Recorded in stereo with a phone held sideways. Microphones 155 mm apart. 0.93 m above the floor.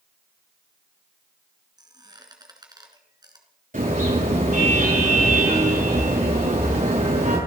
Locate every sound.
1.8 s a squeak: 25° right (ahead or behind), 2.5 m
3.7 s a car horn: 65° right (ahead or behind), 8.5 m